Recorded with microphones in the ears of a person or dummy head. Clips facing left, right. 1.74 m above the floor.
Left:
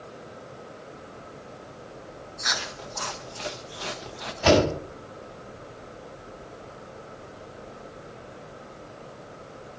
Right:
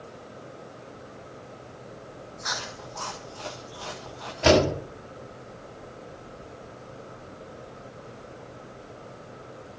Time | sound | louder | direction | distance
2.4 | chewing | left 2 dB | 25° left (ahead or behind) | 0.9 m
4.4 | a door slam | even | 30° right (ahead or behind) | 7 m